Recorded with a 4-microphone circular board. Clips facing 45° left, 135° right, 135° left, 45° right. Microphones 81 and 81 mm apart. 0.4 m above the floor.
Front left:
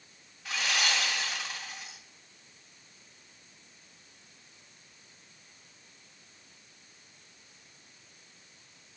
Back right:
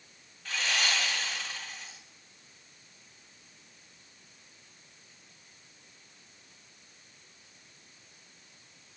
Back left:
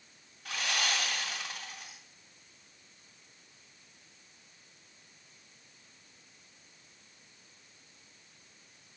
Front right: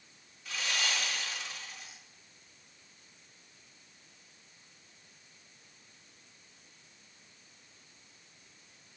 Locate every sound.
0.5 s sawing: 125° left, 2.5 m